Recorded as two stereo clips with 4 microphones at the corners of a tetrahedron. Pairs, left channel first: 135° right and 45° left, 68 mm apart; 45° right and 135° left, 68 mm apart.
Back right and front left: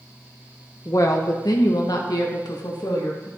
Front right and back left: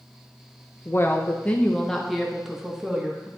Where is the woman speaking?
95° right, 1.1 m; by 3.3 s 150° right, 1.9 m.